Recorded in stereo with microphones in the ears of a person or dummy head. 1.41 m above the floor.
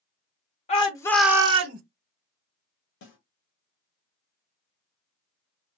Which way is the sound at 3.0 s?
70° left (ahead or behind).